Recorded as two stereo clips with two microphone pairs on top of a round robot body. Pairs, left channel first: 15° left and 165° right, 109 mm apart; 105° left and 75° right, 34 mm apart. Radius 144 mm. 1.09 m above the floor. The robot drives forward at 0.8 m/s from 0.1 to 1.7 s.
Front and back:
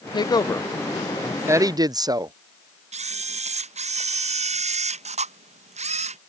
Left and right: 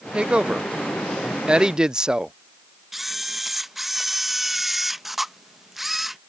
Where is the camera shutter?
160° right.